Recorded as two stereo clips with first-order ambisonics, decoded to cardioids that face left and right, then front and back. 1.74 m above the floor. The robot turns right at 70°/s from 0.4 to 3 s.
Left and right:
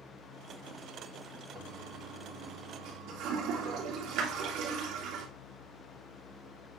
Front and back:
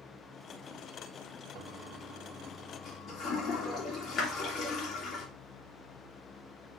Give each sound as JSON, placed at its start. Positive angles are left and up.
{"t": 1.6, "sound": "a toilet flushing", "azimuth_deg": -160, "distance_m": 2.0}